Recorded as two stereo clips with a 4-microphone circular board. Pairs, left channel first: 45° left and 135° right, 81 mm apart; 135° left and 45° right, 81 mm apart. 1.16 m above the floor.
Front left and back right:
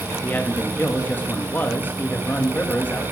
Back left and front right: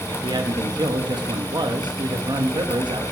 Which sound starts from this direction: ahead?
A man speaking, at 0.1 s.